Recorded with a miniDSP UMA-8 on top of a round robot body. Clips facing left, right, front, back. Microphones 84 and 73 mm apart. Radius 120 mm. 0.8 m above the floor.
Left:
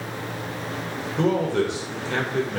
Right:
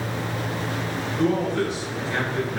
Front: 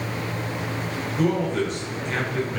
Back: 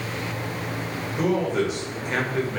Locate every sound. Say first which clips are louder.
1.2 s a man speaking: left 1 dB, even; 95° left, 2.5 m